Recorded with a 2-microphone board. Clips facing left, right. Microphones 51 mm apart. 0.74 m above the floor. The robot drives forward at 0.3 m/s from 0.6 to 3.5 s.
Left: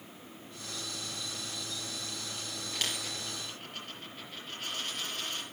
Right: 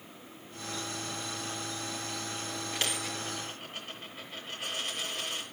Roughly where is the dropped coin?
Centre.